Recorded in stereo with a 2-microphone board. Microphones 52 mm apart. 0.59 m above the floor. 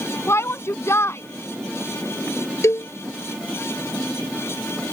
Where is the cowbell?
60° left (ahead or behind).